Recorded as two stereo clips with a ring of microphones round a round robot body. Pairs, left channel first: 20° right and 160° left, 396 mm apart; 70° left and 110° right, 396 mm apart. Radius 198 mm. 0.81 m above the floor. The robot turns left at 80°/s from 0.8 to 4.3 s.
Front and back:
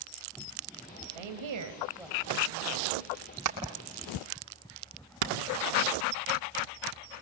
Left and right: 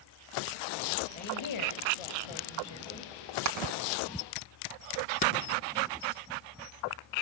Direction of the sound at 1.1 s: 140° left.